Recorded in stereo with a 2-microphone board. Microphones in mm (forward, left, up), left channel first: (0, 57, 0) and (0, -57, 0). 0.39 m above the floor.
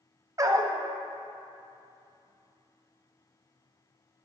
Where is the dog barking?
30° right (ahead or behind), 0.6 m.